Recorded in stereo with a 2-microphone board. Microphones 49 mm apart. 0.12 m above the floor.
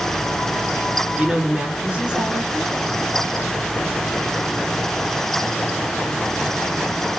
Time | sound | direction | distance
1.2 | a woman speaking | 25° right (ahead or behind) | 1.4 m